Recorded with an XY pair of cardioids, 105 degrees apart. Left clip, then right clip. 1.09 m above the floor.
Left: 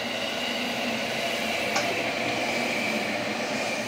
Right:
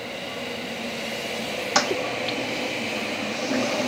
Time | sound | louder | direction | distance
1.8 | a toilet flushing | right 3 dB | 65° right | 0.7 m